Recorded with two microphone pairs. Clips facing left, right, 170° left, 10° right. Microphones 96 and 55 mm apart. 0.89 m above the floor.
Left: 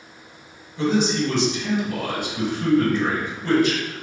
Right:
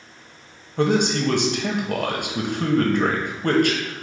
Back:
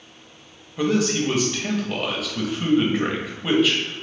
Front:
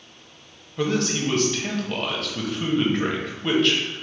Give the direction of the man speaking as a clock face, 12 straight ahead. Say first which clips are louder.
Right 1 dB, back 3 dB; 3 o'clock.